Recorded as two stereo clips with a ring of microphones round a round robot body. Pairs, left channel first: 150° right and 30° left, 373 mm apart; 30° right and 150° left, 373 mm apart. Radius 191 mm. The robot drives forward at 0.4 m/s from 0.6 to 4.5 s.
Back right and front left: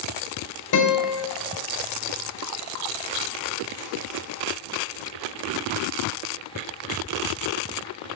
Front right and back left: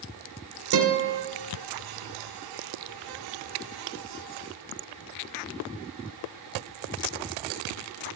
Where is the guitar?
175° left, 2.5 m.